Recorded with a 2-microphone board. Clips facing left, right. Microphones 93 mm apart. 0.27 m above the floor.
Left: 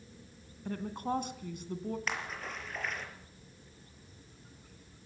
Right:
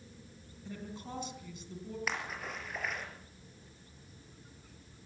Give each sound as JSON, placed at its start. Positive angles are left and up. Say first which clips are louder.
{"t": 0.7, "sound": "a woman speaking", "louder": "left 9 dB", "side_deg": 55, "distance_m": 3.0}
{"t": 2.1, "sound": "a splash", "louder": "even", "side_deg": -5, "distance_m": 5.0}